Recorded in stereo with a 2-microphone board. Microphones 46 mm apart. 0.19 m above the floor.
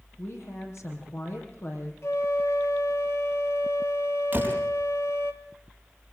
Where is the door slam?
40° right (ahead or behind), 4.5 m.